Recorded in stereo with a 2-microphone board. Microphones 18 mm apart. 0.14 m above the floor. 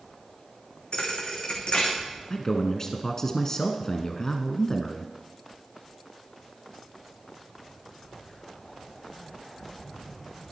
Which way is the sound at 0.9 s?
50° left (ahead or behind).